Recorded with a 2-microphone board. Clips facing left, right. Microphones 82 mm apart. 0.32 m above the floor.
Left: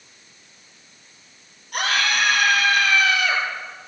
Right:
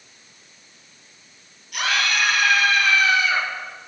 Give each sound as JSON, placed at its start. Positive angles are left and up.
{"t": 1.7, "sound": "a scream", "side_deg": 45, "distance_m": 6.5}